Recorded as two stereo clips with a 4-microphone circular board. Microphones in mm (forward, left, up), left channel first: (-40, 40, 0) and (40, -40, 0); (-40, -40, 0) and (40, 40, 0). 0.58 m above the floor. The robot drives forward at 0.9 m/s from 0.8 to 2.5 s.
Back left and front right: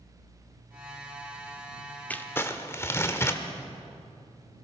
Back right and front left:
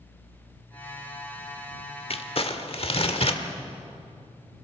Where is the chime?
No chime in this recording.